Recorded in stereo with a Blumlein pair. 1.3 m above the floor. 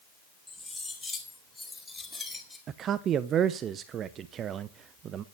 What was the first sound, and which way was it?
Cutlery clinking, 5° left.